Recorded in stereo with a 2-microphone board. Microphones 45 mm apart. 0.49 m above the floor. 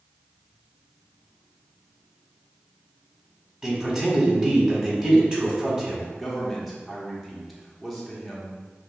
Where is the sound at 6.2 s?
Centre (ahead or behind), 0.9 m.